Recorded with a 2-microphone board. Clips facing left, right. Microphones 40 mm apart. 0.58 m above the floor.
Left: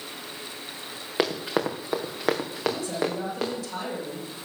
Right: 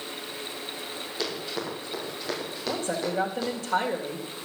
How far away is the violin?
I don't hear a violin.